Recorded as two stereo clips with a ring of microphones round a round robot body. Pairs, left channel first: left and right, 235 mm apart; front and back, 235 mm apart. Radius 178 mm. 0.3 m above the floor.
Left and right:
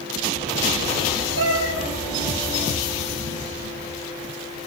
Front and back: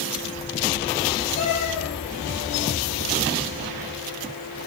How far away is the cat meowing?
About 5 m.